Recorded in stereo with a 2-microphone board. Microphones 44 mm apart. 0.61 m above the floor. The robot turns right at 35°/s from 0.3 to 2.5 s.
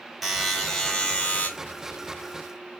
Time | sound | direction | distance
0.2 | a buzzer | straight ahead | 2.5 m